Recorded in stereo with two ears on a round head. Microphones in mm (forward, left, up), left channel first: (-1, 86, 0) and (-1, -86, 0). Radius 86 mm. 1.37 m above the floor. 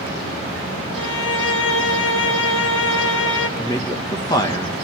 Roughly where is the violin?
Left.